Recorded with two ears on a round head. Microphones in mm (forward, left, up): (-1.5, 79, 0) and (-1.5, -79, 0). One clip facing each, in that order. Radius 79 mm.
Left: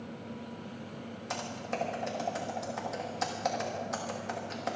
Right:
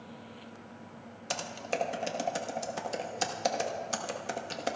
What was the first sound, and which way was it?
Typing on a keyboard, 35° right (ahead or behind).